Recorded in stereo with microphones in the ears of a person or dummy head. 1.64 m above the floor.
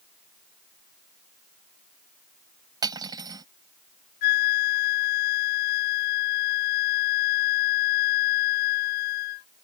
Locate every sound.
2.8 s cutlery clinking: 20° right (ahead or behind)
4.2 s a flute: 55° left (ahead or behind)